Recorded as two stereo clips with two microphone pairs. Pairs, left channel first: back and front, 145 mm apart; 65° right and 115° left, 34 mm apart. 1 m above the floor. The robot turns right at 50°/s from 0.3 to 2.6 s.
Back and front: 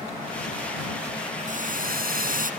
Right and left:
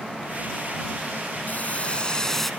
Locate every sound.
1.5 s boiling: 30° right; by 2.5 s 20° left